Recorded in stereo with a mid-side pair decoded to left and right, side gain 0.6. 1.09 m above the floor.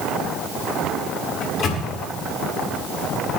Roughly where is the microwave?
Ahead left.